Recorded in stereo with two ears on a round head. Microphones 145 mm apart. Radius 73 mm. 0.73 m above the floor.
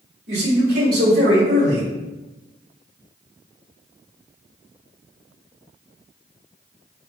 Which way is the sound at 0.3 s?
70° right (ahead or behind).